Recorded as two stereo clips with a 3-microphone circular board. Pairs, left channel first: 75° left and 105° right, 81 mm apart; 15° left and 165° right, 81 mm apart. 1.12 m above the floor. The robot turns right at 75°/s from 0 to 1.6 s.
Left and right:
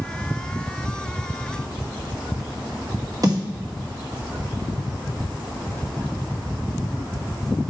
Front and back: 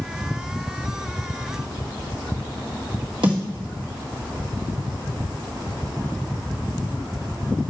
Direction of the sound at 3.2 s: 150° right.